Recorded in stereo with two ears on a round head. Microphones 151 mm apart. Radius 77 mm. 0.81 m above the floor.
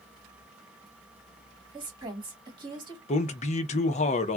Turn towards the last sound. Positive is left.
turn(degrees=40)  # may be behind; listen again after turning